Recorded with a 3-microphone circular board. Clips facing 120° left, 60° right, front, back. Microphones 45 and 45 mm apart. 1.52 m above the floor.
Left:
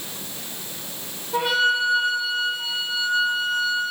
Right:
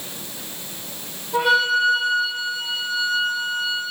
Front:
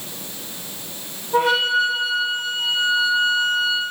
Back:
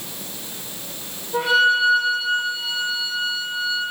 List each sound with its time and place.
1.3 s a flute: 35° left, 2.5 m